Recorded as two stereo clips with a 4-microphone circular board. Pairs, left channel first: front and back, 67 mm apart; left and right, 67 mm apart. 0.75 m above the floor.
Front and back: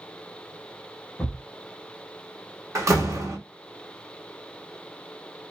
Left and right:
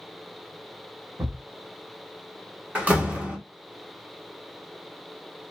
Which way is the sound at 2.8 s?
150° right.